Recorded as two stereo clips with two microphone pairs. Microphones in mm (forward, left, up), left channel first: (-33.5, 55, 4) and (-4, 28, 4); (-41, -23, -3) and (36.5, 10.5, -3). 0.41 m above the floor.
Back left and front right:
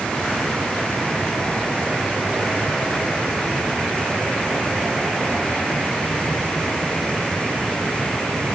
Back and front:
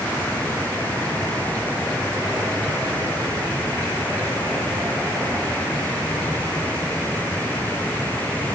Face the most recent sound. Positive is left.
No sound to turn to.